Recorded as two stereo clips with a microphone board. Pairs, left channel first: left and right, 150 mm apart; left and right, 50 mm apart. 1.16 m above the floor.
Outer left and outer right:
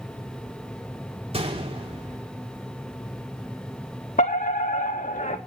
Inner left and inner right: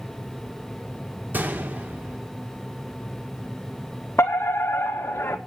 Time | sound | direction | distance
1.3 | a gunshot | 40° right (ahead or behind) | 2.5 m
4.2 | a fire alarm | 60° left (ahead or behind) | 2 m